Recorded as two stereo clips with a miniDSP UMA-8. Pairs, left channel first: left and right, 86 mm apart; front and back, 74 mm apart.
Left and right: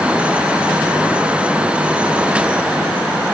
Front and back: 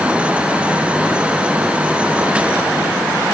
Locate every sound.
Only background noise.